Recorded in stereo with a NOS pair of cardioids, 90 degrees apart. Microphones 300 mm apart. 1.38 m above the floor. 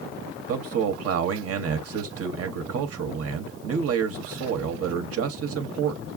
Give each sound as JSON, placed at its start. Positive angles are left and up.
{"t": 0.5, "sound": "a man speaking", "azimuth_deg": -50, "distance_m": 0.9}